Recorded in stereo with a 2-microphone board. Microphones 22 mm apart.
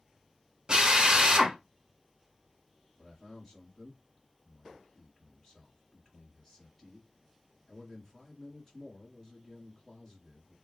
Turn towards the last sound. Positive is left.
turn(degrees=20)  # may be behind; listen again after turning